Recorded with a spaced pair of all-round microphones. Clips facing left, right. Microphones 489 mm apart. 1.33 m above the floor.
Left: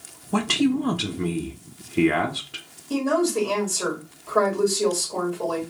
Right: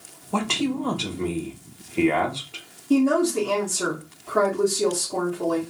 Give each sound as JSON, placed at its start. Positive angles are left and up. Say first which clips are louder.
{"t": 0.3, "sound": "a man speaking", "louder": "left 4 dB", "side_deg": 35, "distance_m": 0.5}
{"t": 2.9, "sound": "a woman speaking", "louder": "right 3 dB", "side_deg": -40, "distance_m": 1.4}